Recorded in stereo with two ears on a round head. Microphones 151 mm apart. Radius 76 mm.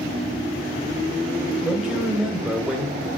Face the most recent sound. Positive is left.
turn(degrees=-5)  # may be behind; listen again after turning